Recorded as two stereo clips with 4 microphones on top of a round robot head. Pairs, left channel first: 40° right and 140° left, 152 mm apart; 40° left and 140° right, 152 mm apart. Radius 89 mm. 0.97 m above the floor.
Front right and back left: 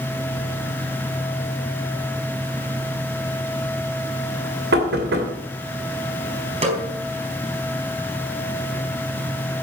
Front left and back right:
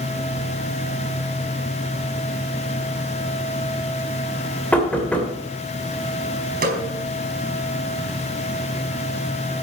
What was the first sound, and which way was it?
Knocking, 125° left.